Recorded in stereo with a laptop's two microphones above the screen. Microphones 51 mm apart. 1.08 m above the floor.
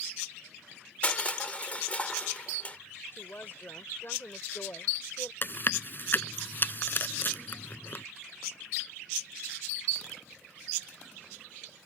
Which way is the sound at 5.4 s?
45° left (ahead or behind).